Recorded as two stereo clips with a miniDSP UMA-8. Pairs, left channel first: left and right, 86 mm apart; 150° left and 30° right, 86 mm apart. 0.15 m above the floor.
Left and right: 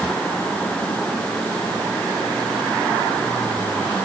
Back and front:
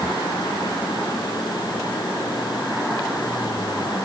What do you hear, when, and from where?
Only background noise.